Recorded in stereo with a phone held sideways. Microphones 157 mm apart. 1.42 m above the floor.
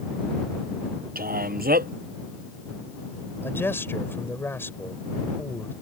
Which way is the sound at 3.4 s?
15° left (ahead or behind).